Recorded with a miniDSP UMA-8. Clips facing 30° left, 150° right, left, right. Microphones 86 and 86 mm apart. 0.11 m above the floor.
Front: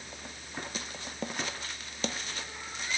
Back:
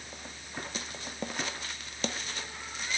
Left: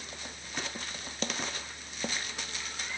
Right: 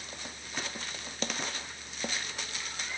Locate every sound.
Only background noise.